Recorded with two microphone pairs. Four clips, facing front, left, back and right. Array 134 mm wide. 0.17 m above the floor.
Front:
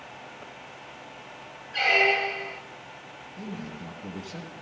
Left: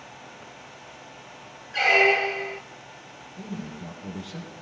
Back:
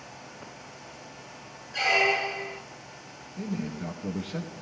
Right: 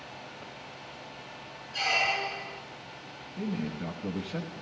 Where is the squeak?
75° left, 0.6 m.